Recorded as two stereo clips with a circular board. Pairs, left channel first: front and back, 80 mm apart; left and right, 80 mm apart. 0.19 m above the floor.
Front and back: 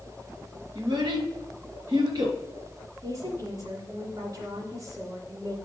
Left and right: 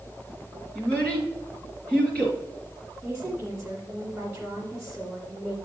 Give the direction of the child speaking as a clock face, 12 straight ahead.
7 o'clock.